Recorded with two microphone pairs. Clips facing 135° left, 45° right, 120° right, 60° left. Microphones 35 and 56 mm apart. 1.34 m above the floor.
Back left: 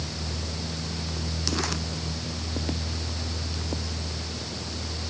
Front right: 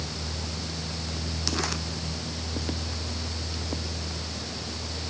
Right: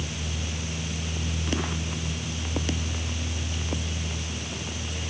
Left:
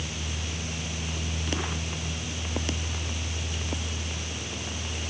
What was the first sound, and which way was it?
Only background noise.